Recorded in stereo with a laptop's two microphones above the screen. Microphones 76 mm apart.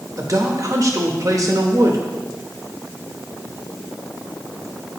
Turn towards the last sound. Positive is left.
turn(degrees=-45)  # may be behind; listen again after turning